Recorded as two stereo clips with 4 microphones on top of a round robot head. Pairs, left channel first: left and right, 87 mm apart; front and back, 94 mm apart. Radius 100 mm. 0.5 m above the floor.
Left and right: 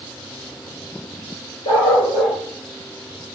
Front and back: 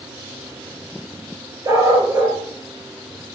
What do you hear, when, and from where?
1.6 s a dog barking: 125° left, 4.5 m